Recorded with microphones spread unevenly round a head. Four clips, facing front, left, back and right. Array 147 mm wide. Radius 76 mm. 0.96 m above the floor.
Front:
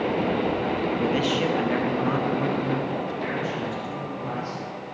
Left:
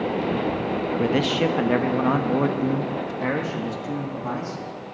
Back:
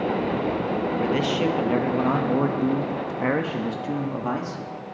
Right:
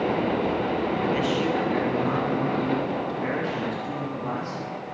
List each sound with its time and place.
1.0 s a man speaking: 95° left, 1.4 m; by 4.6 s 170° left, 2.0 m